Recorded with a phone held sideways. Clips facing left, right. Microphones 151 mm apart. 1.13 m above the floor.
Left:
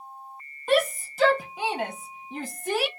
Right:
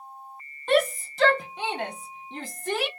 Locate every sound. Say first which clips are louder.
0.7 s a shout: right 1 dB; 5° left (ahead or behind), 0.7 m